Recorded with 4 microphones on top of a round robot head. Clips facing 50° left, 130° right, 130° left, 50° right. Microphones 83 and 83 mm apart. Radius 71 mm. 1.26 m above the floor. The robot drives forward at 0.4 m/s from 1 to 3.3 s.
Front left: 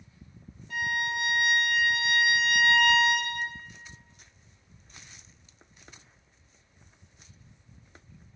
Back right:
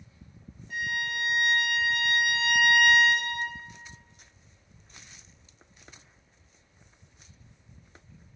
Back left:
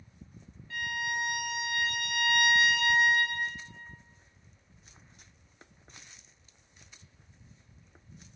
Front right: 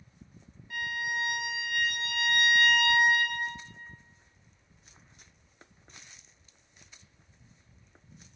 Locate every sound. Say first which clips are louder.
0.7 s a violin: front left 2 dB, even; 25° left, 1.3 m; by 3.4 s 80° left, 0.7 m